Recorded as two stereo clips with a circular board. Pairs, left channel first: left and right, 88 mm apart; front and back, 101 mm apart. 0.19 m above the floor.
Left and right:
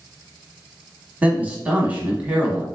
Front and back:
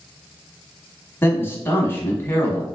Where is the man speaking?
35° right, 1.1 m.